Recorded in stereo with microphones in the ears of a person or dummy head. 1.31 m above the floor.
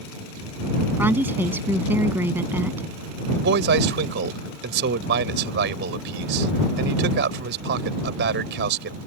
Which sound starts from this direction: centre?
A woman speaking, at 1.0 s.